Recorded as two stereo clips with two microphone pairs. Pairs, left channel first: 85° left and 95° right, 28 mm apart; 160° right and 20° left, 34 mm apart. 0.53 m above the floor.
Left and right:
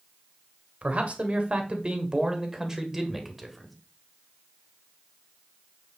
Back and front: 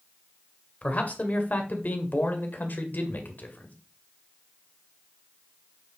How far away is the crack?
I don't hear a crack.